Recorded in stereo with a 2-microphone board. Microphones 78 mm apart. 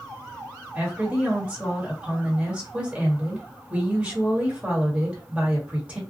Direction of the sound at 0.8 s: 15° right (ahead or behind).